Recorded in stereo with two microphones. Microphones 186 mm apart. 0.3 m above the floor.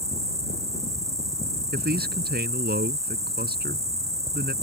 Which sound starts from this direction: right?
A man speaking, at 1.7 s.